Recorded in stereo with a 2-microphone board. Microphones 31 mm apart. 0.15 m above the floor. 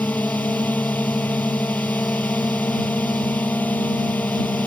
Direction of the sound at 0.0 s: 70° left (ahead or behind).